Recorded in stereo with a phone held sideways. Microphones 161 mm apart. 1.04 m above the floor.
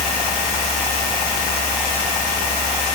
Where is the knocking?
No knocking in this recording.